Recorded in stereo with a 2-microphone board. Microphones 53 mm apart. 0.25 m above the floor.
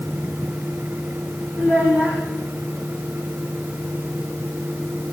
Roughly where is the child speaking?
Right.